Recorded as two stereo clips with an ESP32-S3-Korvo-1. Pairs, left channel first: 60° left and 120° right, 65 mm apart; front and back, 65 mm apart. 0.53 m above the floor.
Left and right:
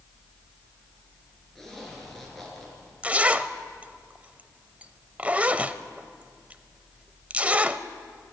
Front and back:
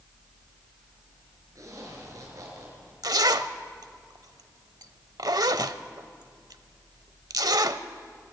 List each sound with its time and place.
1.6 s a zipper: 145° left, 5 m
3.0 s a zipper: 170° left, 0.7 m